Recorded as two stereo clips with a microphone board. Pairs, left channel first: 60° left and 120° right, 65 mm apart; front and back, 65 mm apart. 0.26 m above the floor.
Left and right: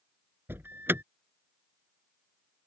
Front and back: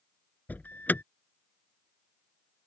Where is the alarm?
65° right.